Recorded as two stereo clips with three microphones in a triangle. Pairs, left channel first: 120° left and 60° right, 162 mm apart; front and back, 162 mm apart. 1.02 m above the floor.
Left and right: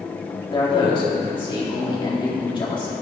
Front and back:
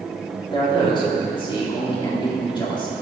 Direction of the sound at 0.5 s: 60° left.